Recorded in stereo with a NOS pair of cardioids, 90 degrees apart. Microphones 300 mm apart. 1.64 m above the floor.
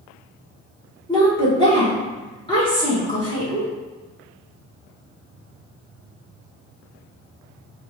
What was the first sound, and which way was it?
A woman speaking, 15° left.